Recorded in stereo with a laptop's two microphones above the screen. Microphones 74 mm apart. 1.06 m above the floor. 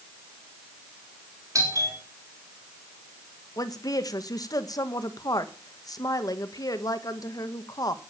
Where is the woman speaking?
60° left (ahead or behind), 1.3 m.